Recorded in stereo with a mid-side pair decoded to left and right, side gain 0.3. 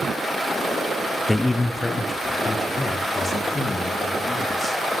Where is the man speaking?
20° left, 0.7 m; by 4.8 s 35° left, 4 m.